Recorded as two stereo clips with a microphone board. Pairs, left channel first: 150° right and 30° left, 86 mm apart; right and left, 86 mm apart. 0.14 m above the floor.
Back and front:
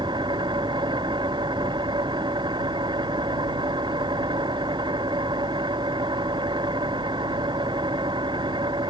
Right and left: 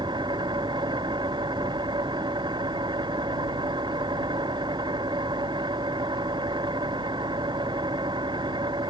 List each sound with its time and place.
0.0 s an engine running: 60° left